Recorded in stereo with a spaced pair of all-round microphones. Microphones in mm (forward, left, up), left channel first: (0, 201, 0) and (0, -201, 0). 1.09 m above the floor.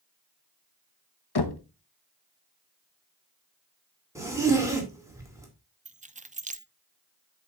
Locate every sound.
1.4 s knocking: 70° left (ahead or behind), 0.8 m
4.2 s a zipper: 5° right (ahead or behind), 2.5 m
5.8 s keys jangling: 20° right (ahead or behind), 0.5 m